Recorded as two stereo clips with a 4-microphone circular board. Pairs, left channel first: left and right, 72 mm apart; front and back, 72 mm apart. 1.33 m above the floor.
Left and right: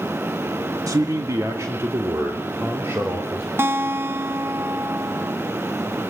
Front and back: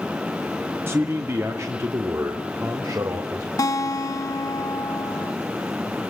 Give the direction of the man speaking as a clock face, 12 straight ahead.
4 o'clock.